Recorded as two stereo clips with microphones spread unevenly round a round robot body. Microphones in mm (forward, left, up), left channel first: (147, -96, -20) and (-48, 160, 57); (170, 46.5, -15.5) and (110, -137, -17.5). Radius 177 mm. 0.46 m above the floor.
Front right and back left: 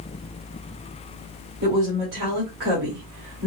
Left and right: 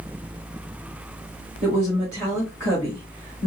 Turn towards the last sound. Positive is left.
turn(degrees=-175)